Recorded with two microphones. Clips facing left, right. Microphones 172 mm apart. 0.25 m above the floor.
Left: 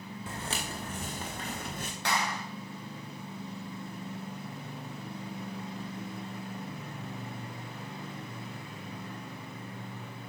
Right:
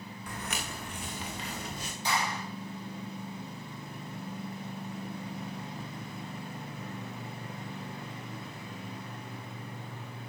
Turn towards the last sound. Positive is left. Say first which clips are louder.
# even
turn(degrees=70)  # may be behind; listen again after turning